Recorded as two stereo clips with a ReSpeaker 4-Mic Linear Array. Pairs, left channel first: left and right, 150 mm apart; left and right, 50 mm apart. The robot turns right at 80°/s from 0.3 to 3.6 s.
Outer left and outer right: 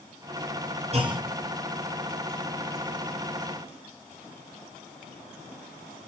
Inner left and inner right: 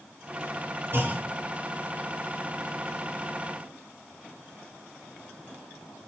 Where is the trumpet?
No trumpet in this recording.